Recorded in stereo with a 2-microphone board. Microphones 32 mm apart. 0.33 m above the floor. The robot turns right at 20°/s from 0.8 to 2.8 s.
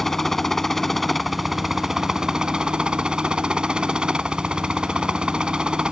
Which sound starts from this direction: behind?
A helicopter, at 0.0 s.